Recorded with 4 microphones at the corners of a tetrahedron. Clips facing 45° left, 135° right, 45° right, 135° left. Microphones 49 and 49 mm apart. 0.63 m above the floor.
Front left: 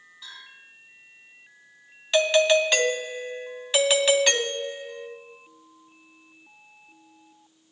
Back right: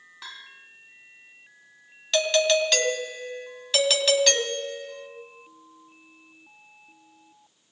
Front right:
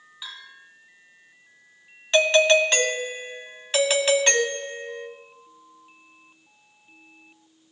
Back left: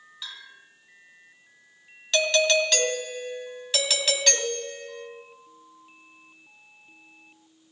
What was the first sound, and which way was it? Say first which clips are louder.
A bell: back right 2 dB, front right 2 dB; 120° right.